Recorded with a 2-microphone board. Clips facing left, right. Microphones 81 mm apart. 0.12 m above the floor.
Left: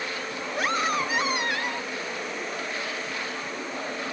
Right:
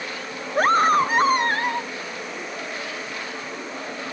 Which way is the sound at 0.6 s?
45° right (ahead or behind).